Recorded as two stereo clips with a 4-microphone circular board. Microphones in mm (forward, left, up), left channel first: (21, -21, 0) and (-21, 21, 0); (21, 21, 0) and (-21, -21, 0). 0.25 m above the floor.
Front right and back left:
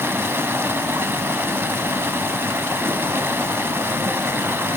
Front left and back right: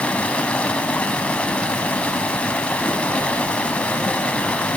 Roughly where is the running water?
Left.